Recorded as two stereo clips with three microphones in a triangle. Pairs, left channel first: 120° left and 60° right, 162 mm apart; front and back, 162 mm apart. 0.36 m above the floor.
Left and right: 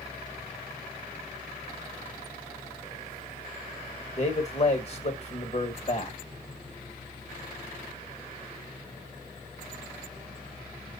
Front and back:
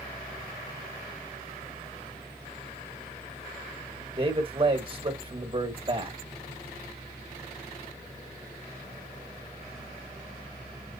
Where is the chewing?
I don't hear chewing.